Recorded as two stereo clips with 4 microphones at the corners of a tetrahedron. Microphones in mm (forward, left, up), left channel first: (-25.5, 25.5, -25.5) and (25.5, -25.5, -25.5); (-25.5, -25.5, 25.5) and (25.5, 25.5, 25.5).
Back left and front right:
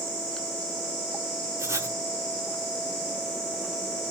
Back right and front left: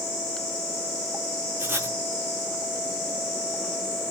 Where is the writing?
5° right, 0.6 m.